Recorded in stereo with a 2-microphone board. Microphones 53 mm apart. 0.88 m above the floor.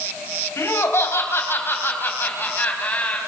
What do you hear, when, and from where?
0.6 s laughter: 60° left (ahead or behind), 4.5 m; by 3.2 s 25° left (ahead or behind), 5 m